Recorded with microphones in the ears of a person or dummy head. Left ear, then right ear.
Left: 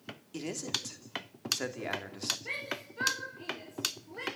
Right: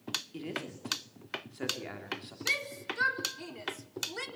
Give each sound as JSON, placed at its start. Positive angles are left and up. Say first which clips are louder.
{"t": 0.3, "sound": "a man speaking", "louder": "left 4 dB", "side_deg": 25, "distance_m": 3.0}
{"t": 2.5, "sound": "a shout", "louder": "right 5 dB", "side_deg": -80, "distance_m": 4.5}